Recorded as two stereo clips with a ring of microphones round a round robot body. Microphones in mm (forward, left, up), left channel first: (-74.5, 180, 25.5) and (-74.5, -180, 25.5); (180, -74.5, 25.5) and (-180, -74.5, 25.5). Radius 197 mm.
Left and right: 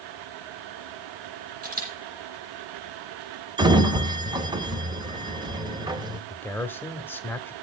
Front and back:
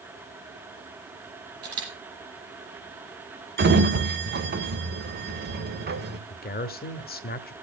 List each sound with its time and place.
1.6 s a camera shutter: 155° right, 10 m
3.6 s a sliding door: 155° right, 1.4 m
6.3 s a man speaking: 15° left, 1.2 m